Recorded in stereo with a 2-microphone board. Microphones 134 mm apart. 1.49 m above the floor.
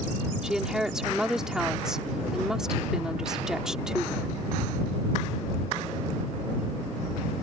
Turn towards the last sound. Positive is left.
turn(degrees=-5)  # may be behind; listen again after turning